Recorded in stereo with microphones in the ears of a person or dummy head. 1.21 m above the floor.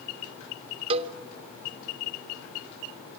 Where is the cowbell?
30° right (ahead or behind), 0.8 m.